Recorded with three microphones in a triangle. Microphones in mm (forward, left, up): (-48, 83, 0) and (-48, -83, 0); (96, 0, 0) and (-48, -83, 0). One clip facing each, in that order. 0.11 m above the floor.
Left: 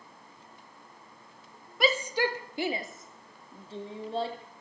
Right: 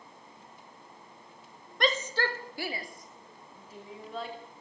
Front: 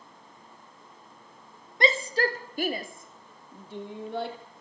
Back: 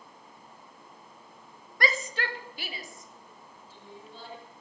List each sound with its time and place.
1.8 s a shout: 15° left, 1.7 m; by 4.4 s 35° left, 4.5 m